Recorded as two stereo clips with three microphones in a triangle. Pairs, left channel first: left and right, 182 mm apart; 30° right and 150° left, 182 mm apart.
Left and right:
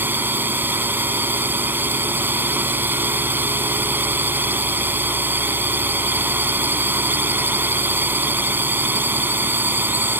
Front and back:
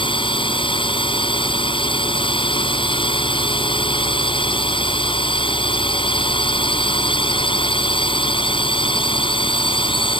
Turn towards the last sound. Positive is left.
turn(degrees=-25)